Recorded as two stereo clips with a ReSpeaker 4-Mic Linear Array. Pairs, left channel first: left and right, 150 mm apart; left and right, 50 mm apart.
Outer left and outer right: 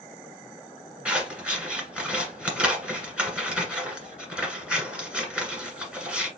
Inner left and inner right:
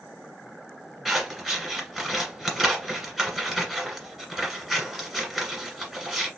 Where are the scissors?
5° right (ahead or behind), 1.6 m.